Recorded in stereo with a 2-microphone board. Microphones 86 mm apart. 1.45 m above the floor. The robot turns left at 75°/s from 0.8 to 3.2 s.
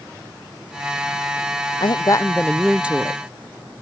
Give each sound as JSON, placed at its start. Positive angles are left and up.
{"t": 1.8, "sound": "a woman speaking", "azimuth_deg": 65}